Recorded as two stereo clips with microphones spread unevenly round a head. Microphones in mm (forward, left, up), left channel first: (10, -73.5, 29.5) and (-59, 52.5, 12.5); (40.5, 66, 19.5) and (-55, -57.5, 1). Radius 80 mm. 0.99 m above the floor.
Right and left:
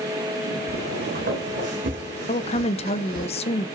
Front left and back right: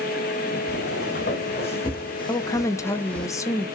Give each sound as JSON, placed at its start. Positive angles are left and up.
{"t": 0.7, "sound": "footsteps", "azimuth_deg": 90, "distance_m": 3.0}
{"t": 2.3, "sound": "a woman speaking", "azimuth_deg": -20, "distance_m": 0.6}